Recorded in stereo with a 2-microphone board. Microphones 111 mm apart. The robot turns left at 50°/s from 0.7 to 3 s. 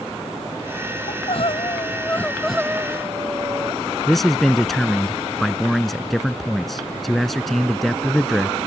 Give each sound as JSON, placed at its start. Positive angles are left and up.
{"t": 1.1, "sound": "crying", "azimuth_deg": 70}
{"t": 4.1, "sound": "a man speaking", "side_deg": 0}